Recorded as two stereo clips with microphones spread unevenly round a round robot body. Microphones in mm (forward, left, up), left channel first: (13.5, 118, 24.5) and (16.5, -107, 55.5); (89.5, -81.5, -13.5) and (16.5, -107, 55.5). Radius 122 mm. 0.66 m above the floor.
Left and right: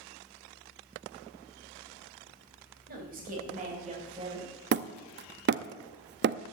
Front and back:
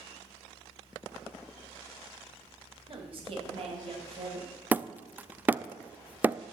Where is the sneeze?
No sneeze in this recording.